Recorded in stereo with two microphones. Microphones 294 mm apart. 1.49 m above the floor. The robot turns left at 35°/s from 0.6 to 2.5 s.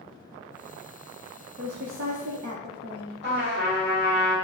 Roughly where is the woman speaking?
Ahead right.